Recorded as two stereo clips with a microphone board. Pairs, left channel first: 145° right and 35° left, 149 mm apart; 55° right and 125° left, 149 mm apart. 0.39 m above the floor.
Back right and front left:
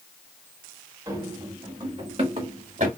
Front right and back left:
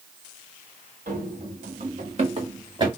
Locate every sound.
1.1 s running footsteps: 100° left, 1.8 m; by 2.9 s 65° left, 1.7 m